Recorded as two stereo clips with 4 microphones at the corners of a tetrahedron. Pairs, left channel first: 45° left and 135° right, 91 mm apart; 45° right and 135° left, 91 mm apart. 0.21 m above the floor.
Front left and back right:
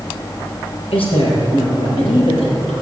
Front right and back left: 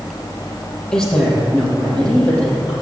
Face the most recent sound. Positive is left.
turn(degrees=30)